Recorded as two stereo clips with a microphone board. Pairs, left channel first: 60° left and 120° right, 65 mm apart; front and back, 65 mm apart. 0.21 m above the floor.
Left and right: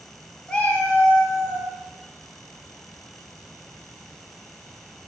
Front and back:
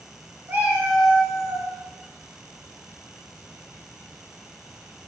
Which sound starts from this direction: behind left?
A cat meowing, at 0.5 s.